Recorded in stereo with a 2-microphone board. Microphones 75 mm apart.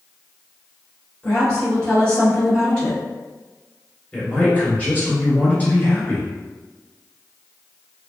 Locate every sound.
1.2 s a woman speaking: 15° left (ahead or behind), 1.4 m
4.1 s a man speaking: 25° left (ahead or behind), 1.6 m